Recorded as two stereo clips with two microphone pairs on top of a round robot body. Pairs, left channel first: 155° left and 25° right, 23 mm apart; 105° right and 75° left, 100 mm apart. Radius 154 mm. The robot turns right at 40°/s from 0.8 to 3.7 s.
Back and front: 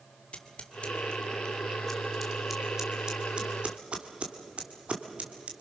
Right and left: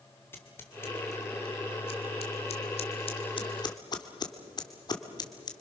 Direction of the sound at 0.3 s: 175° right.